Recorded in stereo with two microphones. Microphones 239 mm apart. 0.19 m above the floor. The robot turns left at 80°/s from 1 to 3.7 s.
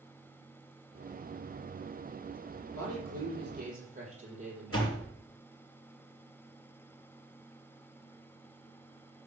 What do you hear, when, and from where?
2.7 s a man speaking: 70° right, 5 m; by 5.0 s 150° right, 5 m
4.7 s a door slam: 65° left (ahead or behind), 3 m